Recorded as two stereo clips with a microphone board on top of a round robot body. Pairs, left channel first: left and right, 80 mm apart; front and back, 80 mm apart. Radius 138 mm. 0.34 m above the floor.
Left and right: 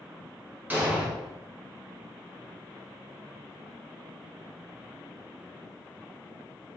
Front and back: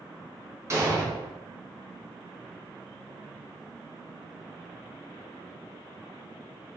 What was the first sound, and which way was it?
An explosion, 150° right.